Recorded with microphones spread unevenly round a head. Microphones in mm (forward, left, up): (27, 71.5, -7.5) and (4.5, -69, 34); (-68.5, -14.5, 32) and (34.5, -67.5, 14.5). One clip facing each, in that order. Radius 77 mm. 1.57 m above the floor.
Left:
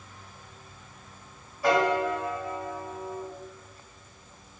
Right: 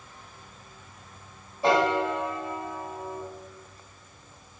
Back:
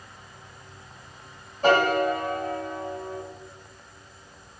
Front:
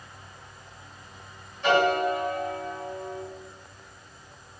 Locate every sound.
1.6 s a piano: 160° right, 0.8 m